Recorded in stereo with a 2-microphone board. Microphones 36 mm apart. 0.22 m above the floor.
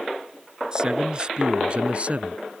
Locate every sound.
0.7 s a man speaking: 20° right (ahead or behind); by 2.4 s 40° right (ahead or behind)